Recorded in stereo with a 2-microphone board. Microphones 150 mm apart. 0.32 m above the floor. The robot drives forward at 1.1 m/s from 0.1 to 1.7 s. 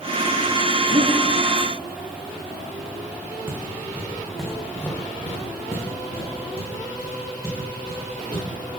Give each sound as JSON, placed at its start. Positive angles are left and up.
{"t": 0.9, "sound": "breathing", "side_deg": -35, "distance_m": 1.0}
{"t": 3.5, "sound": "footsteps", "side_deg": -15, "distance_m": 1.4}